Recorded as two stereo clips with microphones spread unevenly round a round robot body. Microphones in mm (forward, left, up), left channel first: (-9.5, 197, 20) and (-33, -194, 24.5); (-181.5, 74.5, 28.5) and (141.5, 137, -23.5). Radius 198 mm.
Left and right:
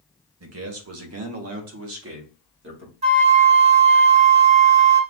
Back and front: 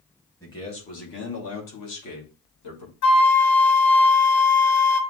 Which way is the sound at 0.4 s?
80° right.